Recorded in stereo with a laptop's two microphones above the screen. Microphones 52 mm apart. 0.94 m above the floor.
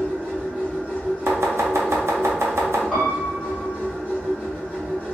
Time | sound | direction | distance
0.0 | a machine running | 30° right (ahead or behind) | 1.4 m
1.3 | chopping | 65° right (ahead or behind) | 0.7 m
2.9 | a piano | 10° right (ahead or behind) | 1.1 m